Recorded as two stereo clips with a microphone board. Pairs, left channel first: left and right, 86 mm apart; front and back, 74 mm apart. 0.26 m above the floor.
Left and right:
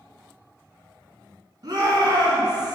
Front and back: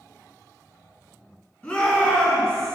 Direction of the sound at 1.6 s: 65° right.